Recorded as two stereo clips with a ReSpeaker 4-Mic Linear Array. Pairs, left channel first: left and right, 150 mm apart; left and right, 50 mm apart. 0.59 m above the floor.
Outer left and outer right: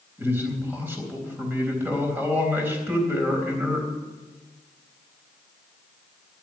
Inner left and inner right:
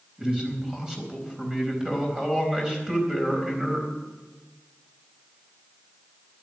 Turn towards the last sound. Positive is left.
turn(degrees=-15)  # may be behind; listen again after turning